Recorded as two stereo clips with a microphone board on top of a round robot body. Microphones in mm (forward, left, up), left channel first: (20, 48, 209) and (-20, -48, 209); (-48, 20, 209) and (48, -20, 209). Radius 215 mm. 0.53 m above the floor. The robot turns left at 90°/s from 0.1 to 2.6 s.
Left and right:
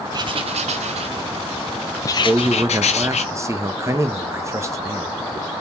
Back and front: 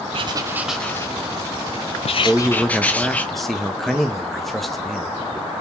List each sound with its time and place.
0.1 s writing: 60° right, 0.5 m; by 3.2 s 80° left, 0.5 m
2.2 s a man speaking: 85° right, 1.3 m; by 5.1 s 115° right, 1.3 m